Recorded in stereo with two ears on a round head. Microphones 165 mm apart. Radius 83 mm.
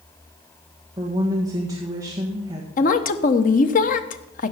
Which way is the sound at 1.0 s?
20° right (ahead or behind).